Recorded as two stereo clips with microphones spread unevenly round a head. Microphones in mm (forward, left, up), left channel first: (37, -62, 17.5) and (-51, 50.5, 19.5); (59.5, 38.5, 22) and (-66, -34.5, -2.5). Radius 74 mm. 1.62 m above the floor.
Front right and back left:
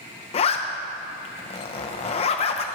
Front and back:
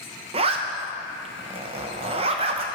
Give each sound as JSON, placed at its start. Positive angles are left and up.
{"t": 0.3, "sound": "a zipper", "azimuth_deg": -100, "distance_m": 0.5}